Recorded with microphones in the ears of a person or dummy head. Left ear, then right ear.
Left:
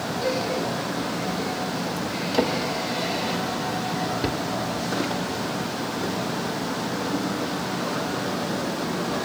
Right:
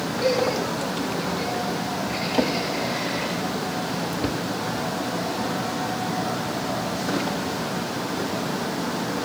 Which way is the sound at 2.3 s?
10° left (ahead or behind).